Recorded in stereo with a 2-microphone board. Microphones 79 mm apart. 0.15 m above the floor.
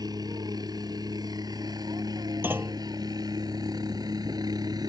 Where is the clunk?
30° right (ahead or behind).